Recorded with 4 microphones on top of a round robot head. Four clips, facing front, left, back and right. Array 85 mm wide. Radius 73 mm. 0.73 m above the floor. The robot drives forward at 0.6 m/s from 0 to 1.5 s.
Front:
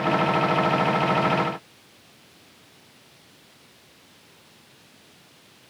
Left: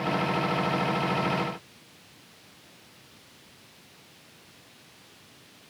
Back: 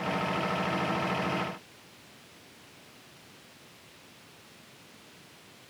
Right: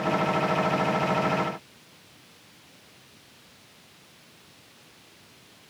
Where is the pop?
No pop in this recording.